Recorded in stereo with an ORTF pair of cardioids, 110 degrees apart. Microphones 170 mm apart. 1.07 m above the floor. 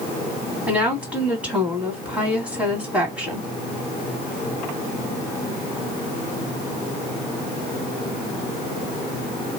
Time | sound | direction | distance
0.7 | a woman speaking | 10° right | 2 m